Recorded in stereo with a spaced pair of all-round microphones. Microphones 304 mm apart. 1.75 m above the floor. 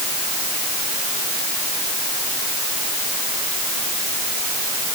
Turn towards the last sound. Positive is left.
No sound to turn to.